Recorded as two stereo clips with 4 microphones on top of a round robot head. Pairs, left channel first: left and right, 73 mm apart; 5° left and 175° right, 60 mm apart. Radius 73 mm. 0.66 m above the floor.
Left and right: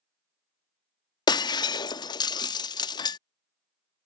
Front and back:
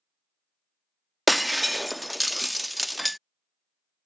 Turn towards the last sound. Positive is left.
turn(degrees=95)